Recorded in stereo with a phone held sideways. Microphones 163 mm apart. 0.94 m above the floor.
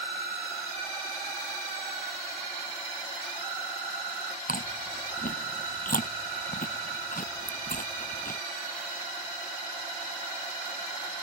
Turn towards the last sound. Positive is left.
turn(degrees=60)  # may be behind; listen again after turning